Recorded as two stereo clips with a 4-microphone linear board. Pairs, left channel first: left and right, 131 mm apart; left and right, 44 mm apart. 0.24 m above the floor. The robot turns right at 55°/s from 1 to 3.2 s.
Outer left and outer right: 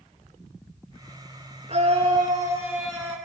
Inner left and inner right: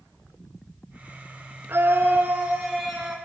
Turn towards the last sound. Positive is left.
turn(degrees=10)